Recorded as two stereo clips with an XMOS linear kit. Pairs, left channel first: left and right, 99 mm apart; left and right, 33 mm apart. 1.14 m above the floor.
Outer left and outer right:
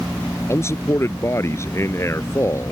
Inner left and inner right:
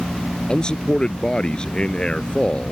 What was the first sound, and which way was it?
A man speaking, 30° left (ahead or behind).